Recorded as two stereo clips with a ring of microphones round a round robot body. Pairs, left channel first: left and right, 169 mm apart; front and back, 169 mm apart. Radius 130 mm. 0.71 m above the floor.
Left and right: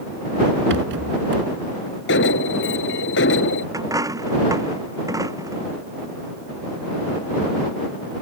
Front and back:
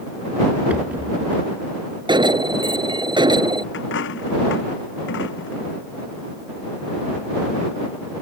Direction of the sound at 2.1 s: 115° left.